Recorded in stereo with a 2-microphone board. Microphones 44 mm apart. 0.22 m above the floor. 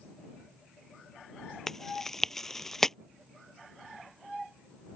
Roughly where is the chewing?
Centre.